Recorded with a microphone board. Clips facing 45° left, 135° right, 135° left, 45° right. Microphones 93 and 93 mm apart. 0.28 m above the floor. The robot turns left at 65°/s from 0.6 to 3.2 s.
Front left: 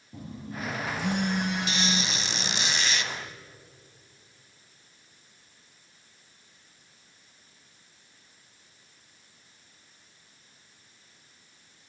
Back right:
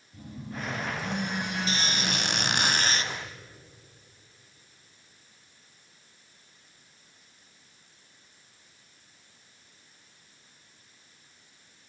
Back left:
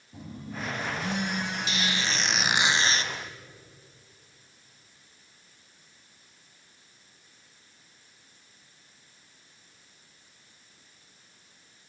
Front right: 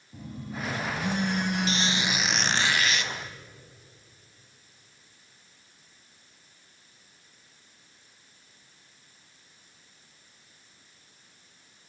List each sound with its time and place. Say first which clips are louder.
0.1 s a phone buzzing: front left 1 dB, front right 1 dB; 50° left, 8 m; by 2.7 s 85° right, 8 m
1.7 s a squeak: front left 1 dB, front right 2 dB; 90° right, 1.2 m; by 3.1 s 170° left, 1.2 m